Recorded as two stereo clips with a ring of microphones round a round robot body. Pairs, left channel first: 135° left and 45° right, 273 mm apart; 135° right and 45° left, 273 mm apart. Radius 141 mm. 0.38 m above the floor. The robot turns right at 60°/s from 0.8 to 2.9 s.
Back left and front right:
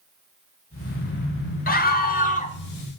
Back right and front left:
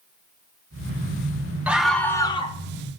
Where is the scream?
125° left, 1.0 m; by 2.5 s straight behind, 1.0 m.